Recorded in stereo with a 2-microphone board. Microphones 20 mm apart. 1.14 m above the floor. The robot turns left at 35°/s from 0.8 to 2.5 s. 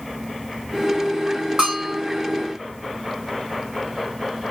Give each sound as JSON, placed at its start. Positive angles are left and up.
{"t": 1.6, "sound": "a bell", "side_deg": -55, "distance_m": 2.5}